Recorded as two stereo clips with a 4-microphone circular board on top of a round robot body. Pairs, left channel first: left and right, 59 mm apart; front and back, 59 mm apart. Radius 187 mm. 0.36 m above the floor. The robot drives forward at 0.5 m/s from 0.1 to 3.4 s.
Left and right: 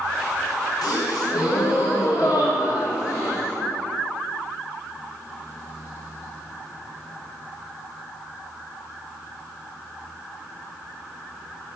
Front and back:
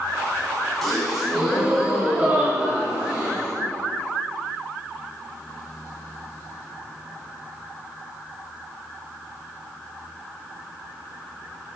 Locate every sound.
0.8 s a gasp: 90° left, 1.7 m; by 3.5 s 130° left, 2 m